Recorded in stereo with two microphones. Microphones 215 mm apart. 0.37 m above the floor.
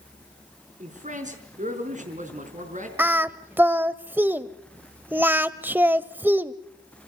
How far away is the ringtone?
I don't hear a ringtone.